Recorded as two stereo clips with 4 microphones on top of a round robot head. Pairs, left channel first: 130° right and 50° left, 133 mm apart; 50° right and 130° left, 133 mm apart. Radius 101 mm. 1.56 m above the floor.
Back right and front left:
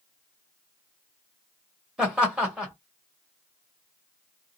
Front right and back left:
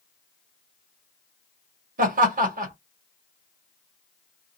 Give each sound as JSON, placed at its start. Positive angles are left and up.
{"t": 2.0, "sound": "laughter", "azimuth_deg": 130, "distance_m": 1.7}